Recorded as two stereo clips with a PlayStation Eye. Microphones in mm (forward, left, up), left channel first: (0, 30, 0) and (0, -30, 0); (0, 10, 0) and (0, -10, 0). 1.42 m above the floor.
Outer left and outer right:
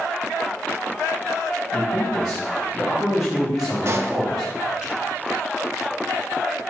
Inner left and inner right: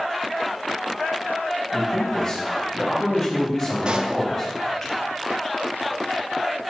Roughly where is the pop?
Right.